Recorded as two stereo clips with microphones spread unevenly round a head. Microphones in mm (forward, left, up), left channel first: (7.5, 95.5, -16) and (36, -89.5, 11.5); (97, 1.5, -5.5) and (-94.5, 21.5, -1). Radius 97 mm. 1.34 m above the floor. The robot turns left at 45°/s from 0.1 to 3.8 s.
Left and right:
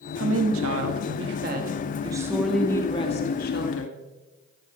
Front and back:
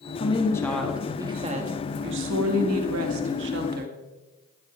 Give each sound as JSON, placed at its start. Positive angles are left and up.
{"t": 0.2, "sound": "a woman speaking", "azimuth_deg": -65, "distance_m": 1.9}